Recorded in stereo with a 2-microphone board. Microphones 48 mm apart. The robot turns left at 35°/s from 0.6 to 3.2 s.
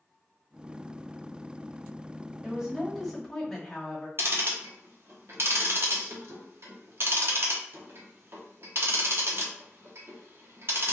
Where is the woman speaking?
20° right (ahead or behind), 1.2 m; by 4.1 s 10° left (ahead or behind), 1.2 m.